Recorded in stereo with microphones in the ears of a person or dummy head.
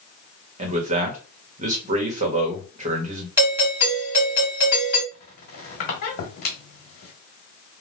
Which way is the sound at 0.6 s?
45° right (ahead or behind).